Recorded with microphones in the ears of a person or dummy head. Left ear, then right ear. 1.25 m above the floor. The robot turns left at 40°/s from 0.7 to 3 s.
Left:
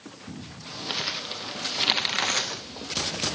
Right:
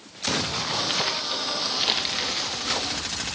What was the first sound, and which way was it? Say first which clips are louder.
Crumpling: right 5 dB; 20° right (ahead or behind).